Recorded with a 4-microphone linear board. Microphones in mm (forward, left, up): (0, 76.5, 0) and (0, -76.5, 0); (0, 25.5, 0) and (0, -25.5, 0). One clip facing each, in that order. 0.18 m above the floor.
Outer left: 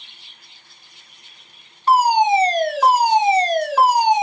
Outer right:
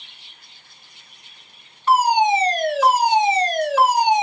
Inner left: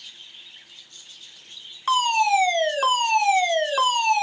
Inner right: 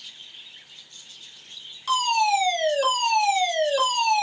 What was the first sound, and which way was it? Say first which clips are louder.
A fire alarm: outer left 2 dB, inner left 2 dB; 35° left (ahead or behind).